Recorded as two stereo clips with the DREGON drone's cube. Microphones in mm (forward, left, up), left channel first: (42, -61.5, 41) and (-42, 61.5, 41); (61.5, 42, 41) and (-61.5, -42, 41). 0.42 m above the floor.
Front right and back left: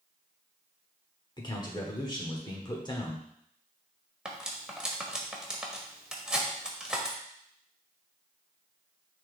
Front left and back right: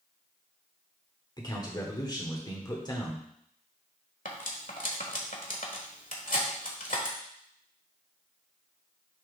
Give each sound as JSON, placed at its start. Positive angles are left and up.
{"t": 1.4, "sound": "a man speaking", "azimuth_deg": -10, "distance_m": 1.2}
{"t": 4.2, "sound": "cutlery clinking", "azimuth_deg": 40, "distance_m": 1.3}